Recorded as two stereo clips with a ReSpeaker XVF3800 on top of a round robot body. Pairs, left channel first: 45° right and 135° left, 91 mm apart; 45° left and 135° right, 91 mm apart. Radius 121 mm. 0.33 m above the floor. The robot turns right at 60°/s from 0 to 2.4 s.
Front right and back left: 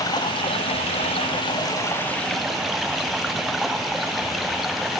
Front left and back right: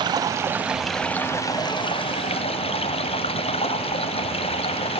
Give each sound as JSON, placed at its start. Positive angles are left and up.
{"t": 0.0, "sound": "running water", "azimuth_deg": -95, "distance_m": 0.7}